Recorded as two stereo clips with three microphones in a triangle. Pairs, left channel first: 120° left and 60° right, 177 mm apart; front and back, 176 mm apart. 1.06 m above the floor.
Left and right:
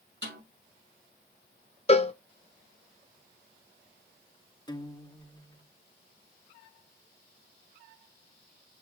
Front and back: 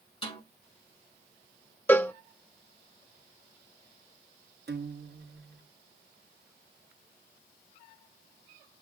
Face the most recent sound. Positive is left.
turn(degrees=180)